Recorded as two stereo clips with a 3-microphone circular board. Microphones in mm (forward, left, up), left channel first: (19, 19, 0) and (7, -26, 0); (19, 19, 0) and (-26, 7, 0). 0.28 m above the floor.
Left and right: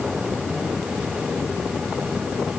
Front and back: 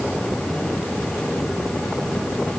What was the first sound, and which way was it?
Only background noise.